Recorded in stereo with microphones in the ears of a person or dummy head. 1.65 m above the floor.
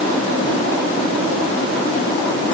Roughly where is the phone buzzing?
I don't hear a phone buzzing.